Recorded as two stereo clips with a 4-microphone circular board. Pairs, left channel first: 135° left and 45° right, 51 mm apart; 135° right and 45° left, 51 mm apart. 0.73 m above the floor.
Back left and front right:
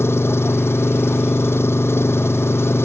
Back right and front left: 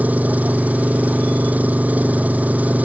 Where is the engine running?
100° left.